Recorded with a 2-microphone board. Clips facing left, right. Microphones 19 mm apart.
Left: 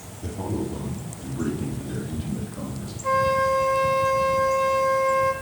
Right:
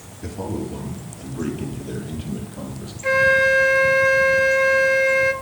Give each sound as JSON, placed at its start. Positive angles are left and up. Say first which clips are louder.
{"t": 0.2, "sound": "a man speaking", "louder": "right 1 dB", "side_deg": -55, "distance_m": 2.5}
{"t": 3.0, "sound": "a flute", "louder": "right 5 dB", "side_deg": -60, "distance_m": 0.6}